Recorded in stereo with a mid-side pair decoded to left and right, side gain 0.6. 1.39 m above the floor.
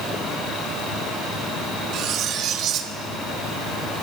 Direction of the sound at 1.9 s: 55° right.